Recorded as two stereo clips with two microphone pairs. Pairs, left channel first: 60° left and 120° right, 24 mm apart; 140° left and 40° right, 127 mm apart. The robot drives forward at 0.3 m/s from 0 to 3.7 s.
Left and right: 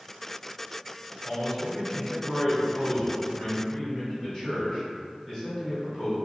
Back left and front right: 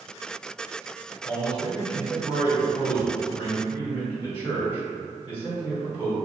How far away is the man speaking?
About 1.7 m.